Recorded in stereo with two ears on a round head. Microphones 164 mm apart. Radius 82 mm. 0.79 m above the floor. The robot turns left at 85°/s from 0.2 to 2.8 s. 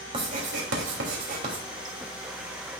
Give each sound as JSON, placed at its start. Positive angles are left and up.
{"t": 0.1, "sound": "writing", "azimuth_deg": -35, "distance_m": 3.0}